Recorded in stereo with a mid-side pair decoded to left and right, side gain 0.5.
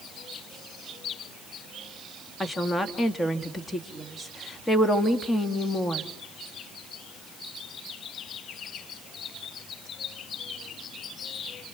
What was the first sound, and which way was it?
A woman speaking, 15° left.